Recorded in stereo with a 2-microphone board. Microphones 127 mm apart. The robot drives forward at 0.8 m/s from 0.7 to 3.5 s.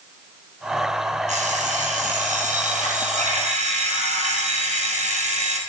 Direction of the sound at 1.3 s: 70° right (ahead or behind).